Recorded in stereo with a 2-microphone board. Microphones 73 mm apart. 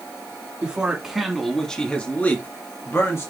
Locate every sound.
0.6 s a man speaking: 15° right (ahead or behind), 1.6 m; by 3.3 s 40° left (ahead or behind), 2.5 m